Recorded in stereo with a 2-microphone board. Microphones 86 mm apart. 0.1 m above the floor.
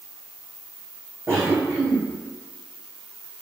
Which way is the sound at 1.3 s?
30° right (ahead or behind).